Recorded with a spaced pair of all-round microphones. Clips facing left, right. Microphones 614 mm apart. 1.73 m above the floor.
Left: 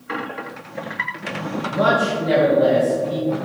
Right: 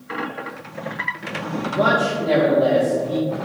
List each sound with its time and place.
1.7 s a man speaking: 40° left (ahead or behind), 1.6 m; by 3.3 s 50° left (ahead or behind), 2.5 m